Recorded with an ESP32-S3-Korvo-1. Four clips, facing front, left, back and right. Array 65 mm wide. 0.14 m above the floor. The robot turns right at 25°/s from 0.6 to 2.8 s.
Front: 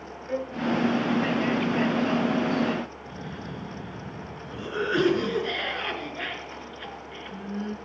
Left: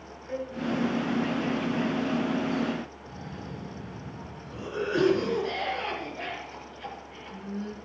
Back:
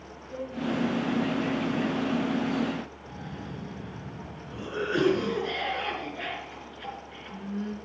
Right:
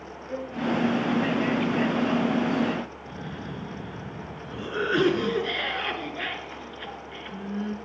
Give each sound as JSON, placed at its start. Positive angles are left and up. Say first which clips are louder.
{"t": 0.3, "sound": "a violin", "louder": "right 1 dB, front 5 dB", "azimuth_deg": -10, "distance_m": 3.0}
{"t": 3.1, "sound": "a cough", "louder": "right 4 dB, front 2 dB", "azimuth_deg": -60, "distance_m": 2.5}